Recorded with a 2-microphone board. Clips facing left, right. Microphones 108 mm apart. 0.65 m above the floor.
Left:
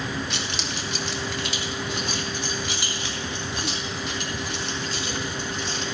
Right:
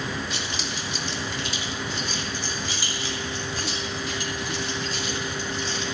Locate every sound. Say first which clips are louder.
0.3 s keys jangling: left 1 dB; 70° left (ahead or behind), 1.1 m